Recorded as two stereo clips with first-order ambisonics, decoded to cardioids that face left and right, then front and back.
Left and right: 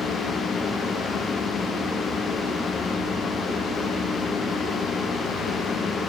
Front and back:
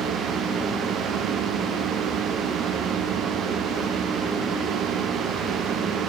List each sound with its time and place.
Only background noise.